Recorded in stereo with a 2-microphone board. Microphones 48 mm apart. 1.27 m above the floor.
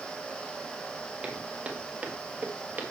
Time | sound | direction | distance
1.2 | footsteps | 15° right (ahead or behind) | 1.8 m